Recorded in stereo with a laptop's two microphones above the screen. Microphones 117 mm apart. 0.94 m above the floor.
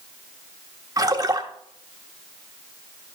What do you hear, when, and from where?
1.0 s a splash: 30° right (ahead or behind), 0.9 m